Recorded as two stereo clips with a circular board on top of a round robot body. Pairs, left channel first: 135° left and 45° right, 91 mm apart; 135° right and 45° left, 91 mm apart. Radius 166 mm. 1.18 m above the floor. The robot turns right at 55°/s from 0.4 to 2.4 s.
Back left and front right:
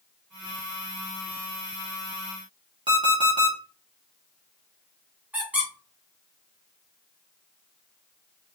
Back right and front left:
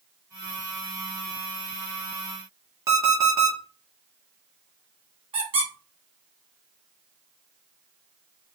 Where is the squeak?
30° left, 1.1 m.